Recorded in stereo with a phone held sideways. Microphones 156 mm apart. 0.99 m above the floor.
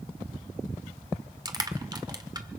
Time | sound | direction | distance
1.4 | crushing | 25° right (ahead or behind) | 1.6 m